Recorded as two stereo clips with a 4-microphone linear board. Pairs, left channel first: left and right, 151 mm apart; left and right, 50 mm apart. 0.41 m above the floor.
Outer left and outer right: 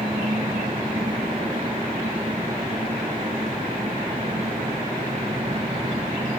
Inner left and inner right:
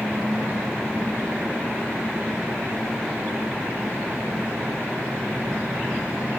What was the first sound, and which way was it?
An engine running, 40° right (ahead or behind).